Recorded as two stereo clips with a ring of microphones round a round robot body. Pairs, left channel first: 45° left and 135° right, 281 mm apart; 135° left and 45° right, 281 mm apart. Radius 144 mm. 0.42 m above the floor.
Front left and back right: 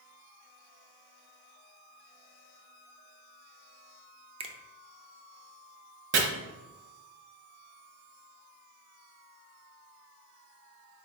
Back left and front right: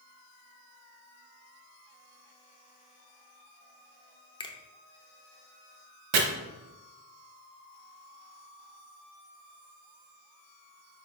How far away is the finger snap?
About 0.5 m.